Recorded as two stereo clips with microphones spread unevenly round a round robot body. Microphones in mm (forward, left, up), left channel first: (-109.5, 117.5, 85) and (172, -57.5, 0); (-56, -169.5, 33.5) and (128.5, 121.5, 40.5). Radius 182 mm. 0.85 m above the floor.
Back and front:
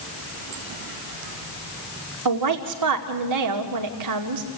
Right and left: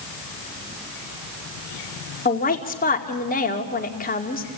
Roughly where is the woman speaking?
Ahead right.